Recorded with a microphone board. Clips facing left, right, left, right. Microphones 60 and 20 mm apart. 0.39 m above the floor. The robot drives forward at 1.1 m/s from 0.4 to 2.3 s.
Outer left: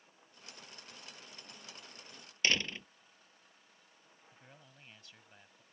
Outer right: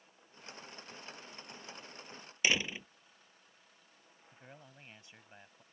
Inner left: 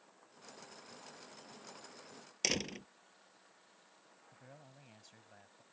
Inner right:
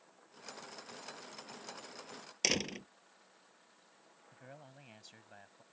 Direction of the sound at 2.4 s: 10° right (ahead or behind).